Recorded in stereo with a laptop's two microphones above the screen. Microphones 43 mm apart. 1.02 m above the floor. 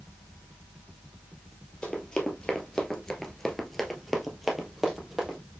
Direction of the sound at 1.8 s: 15° left (ahead or behind).